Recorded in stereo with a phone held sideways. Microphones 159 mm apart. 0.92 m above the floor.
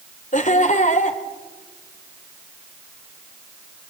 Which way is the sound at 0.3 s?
50° left (ahead or behind).